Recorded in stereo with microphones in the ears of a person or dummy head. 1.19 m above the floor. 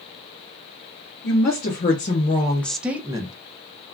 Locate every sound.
1.2 s a woman speaking: 45° left (ahead or behind), 0.9 m; by 3.3 s 25° right (ahead or behind), 0.6 m